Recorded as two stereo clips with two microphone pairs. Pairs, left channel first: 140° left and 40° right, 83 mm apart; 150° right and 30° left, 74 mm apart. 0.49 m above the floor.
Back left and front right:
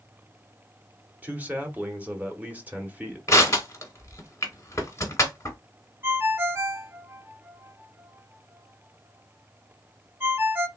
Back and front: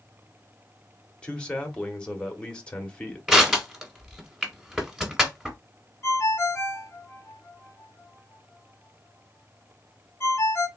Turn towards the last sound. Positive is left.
turn(degrees=-100)